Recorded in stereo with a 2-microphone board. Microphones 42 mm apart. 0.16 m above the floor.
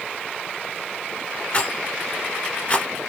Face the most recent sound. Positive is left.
turn(degrees=30)  # may be behind; listen again after turning